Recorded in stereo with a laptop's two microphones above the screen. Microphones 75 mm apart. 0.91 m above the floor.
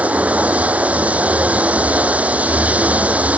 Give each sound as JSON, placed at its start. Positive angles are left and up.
{"t": 0.0, "sound": "running water", "side_deg": -20}